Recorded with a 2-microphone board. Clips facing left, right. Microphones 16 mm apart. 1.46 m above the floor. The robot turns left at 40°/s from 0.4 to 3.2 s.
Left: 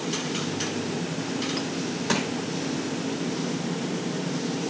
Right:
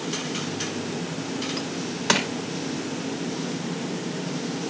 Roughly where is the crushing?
Right.